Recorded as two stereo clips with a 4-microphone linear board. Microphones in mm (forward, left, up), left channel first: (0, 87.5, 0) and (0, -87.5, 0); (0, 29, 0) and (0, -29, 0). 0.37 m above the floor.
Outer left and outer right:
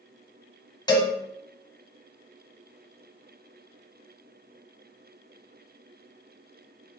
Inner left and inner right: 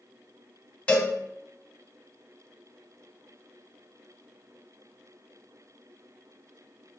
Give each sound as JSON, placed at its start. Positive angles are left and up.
{"t": 0.9, "sound": "a cowbell", "side_deg": 20, "distance_m": 0.5}